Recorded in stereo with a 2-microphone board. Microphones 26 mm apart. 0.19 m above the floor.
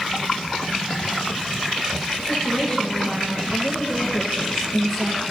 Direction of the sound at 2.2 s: 30° left (ahead or behind).